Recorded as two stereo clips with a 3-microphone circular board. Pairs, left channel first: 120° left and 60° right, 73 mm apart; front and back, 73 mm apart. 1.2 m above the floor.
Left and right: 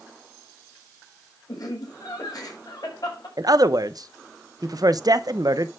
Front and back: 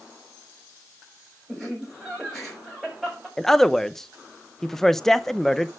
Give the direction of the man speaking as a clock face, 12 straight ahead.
3 o'clock.